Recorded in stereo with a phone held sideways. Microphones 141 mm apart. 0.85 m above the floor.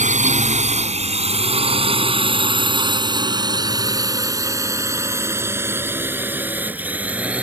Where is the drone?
60° right (ahead or behind); by 7.4 s 10° right (ahead or behind).